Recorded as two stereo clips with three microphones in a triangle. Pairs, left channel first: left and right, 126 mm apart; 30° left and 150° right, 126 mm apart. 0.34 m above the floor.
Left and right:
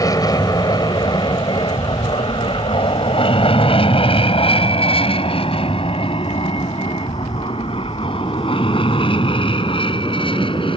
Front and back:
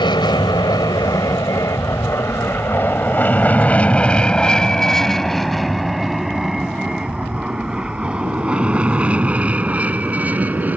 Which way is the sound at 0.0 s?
50° left.